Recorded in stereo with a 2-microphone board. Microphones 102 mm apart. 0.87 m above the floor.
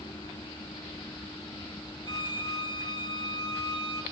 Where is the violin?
50° left (ahead or behind), 1.3 m.